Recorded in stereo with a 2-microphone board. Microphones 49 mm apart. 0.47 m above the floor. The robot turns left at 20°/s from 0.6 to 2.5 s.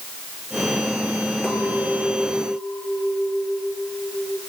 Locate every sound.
1.4 s a clink: 20° left (ahead or behind), 8 m; by 4.4 s 5° right (ahead or behind), 8 m